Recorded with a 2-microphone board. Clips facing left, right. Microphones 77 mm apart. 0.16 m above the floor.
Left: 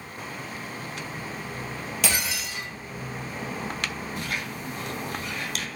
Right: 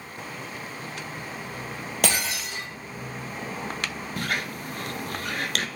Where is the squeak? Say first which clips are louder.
Right 6 dB; 60° right (ahead or behind), 0.6 m.